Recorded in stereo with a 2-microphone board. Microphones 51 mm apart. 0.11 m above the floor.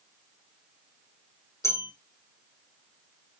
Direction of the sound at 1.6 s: 75° left (ahead or behind).